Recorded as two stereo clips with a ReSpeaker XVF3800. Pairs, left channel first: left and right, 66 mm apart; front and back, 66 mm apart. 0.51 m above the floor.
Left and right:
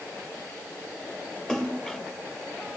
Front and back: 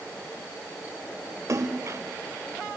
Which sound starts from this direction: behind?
A splash, at 1.5 s.